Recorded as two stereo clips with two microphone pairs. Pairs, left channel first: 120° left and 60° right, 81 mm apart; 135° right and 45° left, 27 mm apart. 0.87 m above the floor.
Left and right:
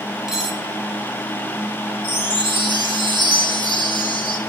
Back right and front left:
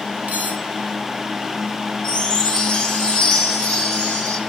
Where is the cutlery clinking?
25° left, 3.5 m.